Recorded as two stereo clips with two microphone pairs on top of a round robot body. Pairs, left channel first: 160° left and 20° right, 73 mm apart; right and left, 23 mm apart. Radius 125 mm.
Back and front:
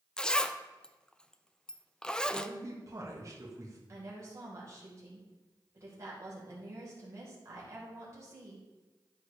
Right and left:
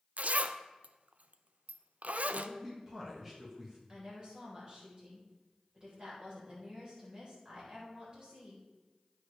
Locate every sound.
0.2 s a zipper: 85° left, 0.5 m
2.3 s a man speaking: 20° left, 1.8 m
3.9 s a woman speaking: 35° left, 4 m